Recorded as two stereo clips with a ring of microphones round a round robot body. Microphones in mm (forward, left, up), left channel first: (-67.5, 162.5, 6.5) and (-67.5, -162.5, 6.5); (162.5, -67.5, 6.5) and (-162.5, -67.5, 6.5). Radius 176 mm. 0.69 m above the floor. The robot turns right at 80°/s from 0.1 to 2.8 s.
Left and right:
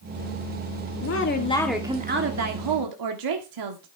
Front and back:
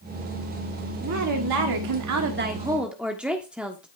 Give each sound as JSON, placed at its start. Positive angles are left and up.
{"t": 1.0, "sound": "a woman speaking", "azimuth_deg": 125, "distance_m": 1.5}